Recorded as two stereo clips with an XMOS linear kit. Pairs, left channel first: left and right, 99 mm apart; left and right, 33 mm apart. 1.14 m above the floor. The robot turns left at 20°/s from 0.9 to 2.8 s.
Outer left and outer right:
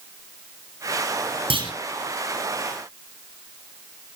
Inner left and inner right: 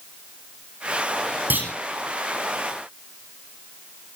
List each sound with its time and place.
1.5 s a clunk: 65° right (ahead or behind), 6 m